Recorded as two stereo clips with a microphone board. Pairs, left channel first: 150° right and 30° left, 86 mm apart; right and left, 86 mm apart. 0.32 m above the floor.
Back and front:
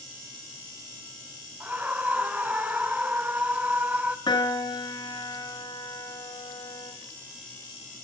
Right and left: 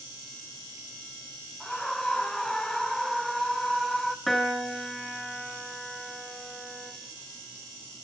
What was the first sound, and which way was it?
A scream, 10° right.